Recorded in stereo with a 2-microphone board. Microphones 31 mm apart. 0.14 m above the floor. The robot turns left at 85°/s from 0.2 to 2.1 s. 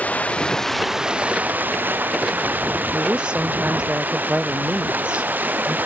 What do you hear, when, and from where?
0.0 s running water: 50° left; by 5.9 s 110° right
2.9 s a woman speaking: 30° right (ahead or behind)